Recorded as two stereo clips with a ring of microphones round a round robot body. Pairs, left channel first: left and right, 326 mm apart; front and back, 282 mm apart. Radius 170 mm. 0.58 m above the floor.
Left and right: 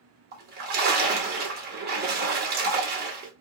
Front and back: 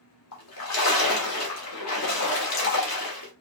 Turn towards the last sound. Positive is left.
turn(degrees=-30)